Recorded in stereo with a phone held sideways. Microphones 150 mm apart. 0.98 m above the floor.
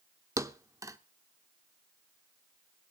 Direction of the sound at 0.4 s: 20° right (ahead or behind).